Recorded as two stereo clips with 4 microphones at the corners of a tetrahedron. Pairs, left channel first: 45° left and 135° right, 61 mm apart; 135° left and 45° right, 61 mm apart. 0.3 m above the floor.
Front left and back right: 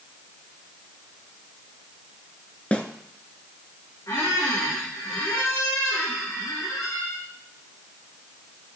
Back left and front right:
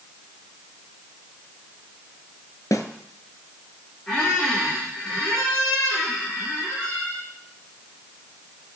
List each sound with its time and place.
2.7 s a snare drum: 115° left, 1.0 m
4.1 s a squeak: 60° left, 4 m